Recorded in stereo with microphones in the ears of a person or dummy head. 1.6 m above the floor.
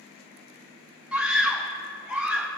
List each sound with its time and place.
1.1 s a scream: centre (ahead or behind), 0.7 m